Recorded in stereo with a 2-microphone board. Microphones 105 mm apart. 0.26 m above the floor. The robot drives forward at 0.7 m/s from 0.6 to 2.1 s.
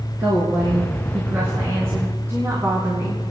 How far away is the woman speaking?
About 3.5 m.